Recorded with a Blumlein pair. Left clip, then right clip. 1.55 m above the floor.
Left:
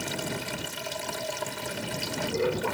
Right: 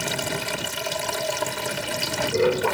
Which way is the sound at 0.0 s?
20° right.